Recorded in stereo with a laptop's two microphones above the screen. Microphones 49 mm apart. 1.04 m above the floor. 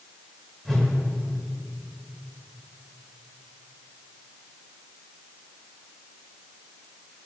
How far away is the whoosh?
About 1.5 m.